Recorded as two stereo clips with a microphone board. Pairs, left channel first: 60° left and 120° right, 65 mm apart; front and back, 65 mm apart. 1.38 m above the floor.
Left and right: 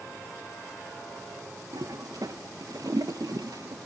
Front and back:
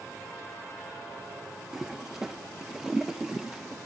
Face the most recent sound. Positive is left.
turn(degrees=-95)